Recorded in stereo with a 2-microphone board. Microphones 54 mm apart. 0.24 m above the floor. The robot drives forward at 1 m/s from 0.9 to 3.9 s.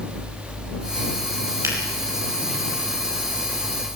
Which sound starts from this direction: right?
A finger snap, at 1.6 s.